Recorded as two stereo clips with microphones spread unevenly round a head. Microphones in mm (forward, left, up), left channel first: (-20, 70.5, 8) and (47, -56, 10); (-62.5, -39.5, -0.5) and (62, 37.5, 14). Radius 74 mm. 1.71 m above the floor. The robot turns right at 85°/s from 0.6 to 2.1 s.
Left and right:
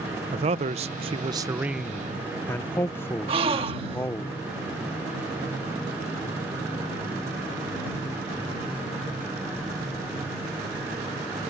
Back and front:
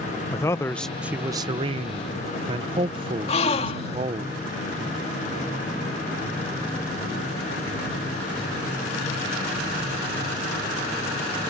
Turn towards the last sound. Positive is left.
turn(degrees=-105)